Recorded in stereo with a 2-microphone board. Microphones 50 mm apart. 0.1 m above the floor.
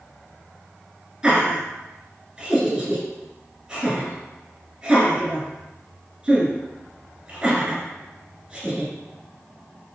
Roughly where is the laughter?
Centre.